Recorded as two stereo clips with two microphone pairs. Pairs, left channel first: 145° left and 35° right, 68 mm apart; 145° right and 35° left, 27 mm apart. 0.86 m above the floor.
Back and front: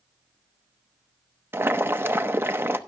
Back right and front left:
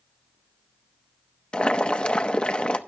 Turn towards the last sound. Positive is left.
turn(degrees=-90)